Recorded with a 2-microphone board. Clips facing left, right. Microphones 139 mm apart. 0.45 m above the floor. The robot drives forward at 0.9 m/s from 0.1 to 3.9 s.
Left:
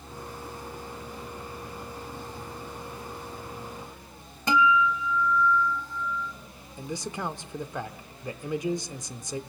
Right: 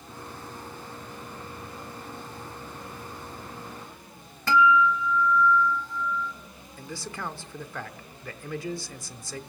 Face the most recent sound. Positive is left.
turn(degrees=20)  # may be behind; listen again after turning